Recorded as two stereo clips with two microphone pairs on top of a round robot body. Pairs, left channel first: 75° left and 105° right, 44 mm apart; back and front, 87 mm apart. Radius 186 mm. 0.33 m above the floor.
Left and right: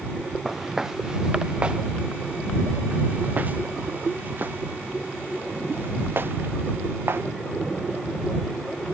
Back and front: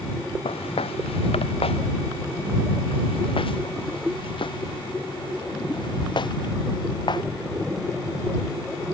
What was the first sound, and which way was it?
Footsteps, 170° left.